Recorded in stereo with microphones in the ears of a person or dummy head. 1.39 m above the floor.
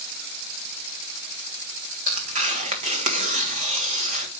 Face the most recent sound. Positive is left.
turn(degrees=-40)  # may be behind; listen again after turning